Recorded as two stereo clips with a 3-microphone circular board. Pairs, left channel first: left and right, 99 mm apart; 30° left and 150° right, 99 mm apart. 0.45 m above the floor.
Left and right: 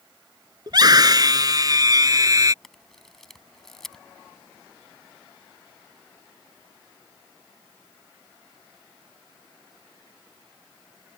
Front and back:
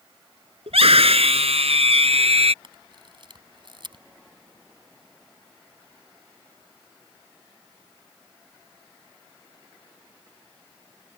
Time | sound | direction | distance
0.7 | a scream | 135° right | ?
2.6 | a camera shutter | 175° left | ?